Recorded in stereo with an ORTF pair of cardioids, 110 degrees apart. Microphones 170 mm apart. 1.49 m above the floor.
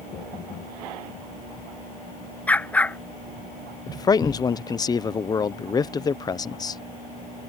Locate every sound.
2.5 s a dog barking: 10° left
3.9 s a man speaking: 25° left